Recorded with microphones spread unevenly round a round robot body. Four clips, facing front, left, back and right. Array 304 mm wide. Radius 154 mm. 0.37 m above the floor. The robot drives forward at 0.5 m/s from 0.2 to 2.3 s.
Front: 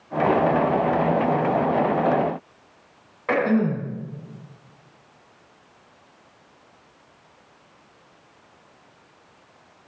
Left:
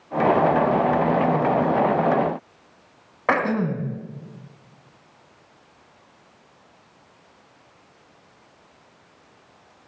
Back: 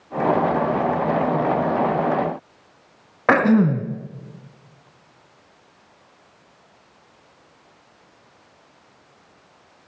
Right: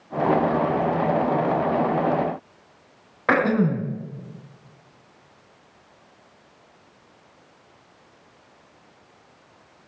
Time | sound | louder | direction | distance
3.3 | throat clearing | right 2 dB, back 5 dB | 175° right | 2 m